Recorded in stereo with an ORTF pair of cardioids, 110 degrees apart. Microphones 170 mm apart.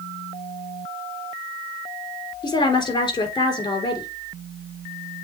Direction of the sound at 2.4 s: 25° left.